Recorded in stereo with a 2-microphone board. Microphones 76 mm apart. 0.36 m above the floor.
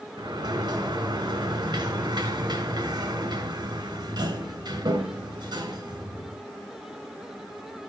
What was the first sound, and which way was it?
A sliding door, 70° right (ahead or behind).